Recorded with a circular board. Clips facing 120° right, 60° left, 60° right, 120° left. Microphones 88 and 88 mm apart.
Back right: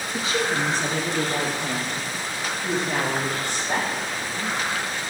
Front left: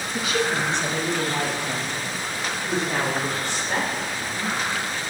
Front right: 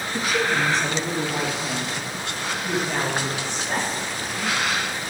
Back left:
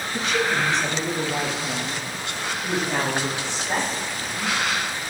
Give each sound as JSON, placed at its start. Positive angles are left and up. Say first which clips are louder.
{"t": 0.1, "sound": "a woman speaking", "louder": "front left 1 dB, even", "azimuth_deg": -130, "distance_m": 1.2}